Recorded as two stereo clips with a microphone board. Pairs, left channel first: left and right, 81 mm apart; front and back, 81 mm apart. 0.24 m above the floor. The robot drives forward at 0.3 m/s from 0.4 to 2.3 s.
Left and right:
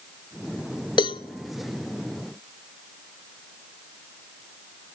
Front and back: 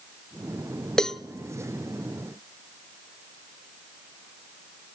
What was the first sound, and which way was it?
A cowbell, 80° left.